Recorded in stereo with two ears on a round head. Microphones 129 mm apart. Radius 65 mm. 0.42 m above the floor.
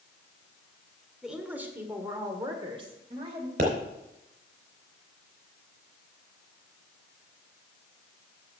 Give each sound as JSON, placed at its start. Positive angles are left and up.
{"t": 1.2, "sound": "a woman speaking", "side_deg": -5, "distance_m": 1.6}
{"t": 3.6, "sound": "a pop", "side_deg": -65, "distance_m": 3.5}